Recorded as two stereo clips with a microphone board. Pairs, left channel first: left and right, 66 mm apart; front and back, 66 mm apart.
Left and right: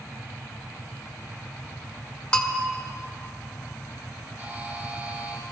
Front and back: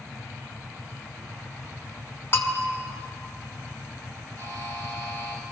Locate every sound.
2.3 s a bell: 25° left, 1.0 m
4.4 s a buzzer: 160° right, 5.5 m